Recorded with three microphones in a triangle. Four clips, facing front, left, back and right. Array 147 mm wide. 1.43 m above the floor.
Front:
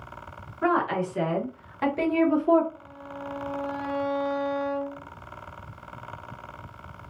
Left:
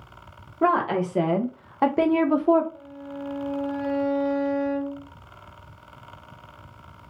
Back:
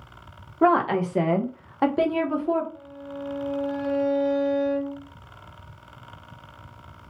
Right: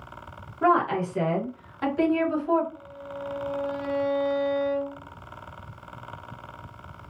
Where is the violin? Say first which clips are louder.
Left 1 dB, back 3 dB; 150° left, 2.5 m.